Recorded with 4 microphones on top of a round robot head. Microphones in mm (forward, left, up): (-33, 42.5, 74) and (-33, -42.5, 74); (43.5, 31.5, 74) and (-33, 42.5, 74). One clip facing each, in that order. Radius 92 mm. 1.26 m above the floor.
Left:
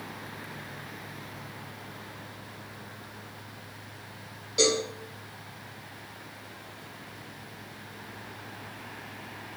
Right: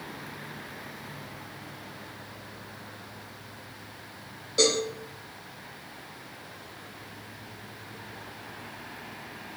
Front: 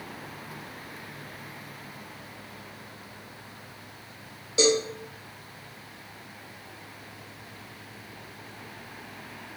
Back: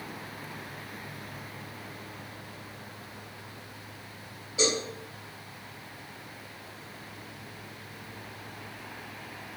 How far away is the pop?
I don't hear a pop.